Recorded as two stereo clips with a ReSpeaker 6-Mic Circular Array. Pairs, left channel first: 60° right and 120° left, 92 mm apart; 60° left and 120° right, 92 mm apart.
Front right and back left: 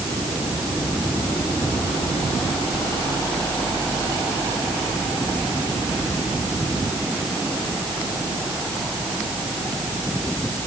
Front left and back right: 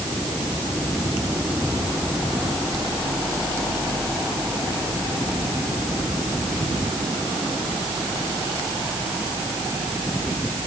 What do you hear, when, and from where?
Only background noise.